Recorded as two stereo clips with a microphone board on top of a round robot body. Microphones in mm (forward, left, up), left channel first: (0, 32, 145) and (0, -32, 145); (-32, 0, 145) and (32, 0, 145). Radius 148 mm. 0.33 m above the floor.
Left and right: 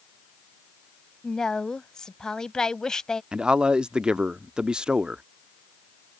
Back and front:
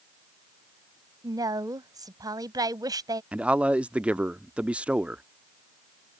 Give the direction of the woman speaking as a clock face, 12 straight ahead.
12 o'clock.